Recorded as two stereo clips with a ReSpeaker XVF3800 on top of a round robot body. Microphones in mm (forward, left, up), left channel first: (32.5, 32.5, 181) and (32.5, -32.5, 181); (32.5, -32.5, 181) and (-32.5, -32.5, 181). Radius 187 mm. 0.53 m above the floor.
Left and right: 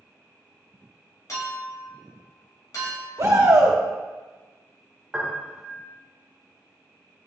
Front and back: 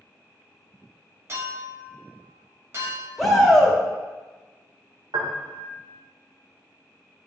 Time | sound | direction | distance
1.3 | a clink | 125° left | 1.9 m
3.2 | a shout | 85° right | 2 m
5.1 | a piano | 175° right | 1.1 m